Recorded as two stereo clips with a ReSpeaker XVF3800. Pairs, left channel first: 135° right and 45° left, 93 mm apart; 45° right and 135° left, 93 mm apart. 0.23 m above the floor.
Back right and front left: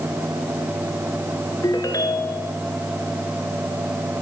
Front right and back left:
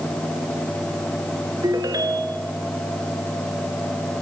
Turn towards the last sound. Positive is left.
turn(degrees=180)